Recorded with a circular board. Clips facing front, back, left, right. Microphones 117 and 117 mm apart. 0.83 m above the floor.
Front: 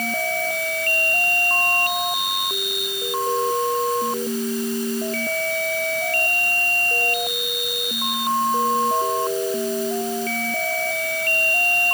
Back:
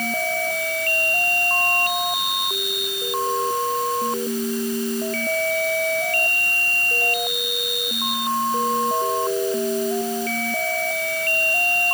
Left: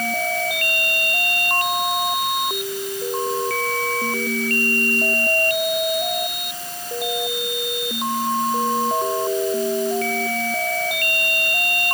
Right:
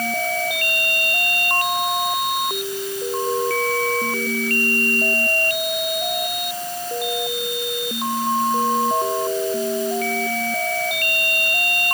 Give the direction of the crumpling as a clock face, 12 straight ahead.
I don't hear crumpling.